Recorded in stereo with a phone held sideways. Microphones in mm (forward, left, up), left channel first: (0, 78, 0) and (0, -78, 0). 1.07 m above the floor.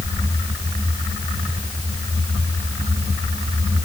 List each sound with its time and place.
Only background noise.